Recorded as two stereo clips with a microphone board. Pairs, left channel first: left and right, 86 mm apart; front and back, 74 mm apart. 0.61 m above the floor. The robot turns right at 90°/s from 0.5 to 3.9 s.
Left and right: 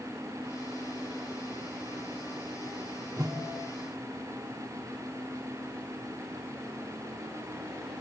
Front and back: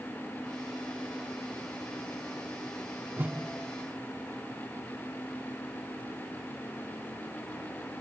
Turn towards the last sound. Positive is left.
turn(degrees=-60)